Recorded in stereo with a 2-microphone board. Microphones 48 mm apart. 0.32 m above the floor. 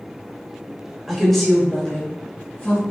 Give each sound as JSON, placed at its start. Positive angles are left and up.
{"t": 1.1, "sound": "a woman speaking", "side_deg": -5, "distance_m": 0.9}